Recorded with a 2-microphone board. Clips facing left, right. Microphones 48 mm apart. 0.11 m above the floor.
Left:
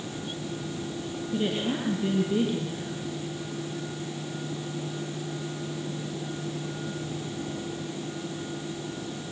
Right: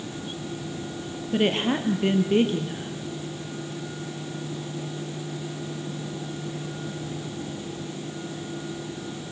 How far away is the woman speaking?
About 3 m.